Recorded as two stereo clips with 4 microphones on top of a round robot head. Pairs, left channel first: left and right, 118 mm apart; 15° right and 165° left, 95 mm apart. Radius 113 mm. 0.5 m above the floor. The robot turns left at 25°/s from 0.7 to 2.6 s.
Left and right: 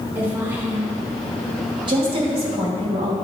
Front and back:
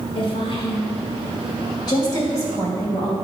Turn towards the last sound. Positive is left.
turn(degrees=-70)